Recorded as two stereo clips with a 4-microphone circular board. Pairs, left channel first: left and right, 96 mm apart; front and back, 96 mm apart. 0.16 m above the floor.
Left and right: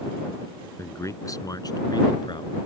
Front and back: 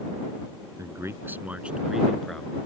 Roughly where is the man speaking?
Behind left.